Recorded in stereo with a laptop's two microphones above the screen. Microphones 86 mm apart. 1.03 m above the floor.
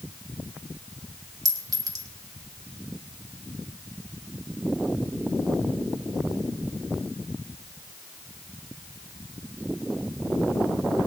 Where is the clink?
45° right (ahead or behind), 1.7 m.